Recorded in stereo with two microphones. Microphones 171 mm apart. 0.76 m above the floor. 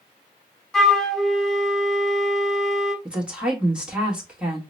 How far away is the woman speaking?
About 1.2 m.